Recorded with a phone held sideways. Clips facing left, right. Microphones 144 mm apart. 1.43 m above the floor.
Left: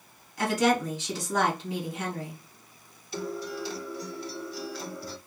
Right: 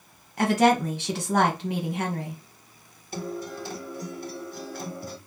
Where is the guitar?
50° right (ahead or behind), 0.9 m.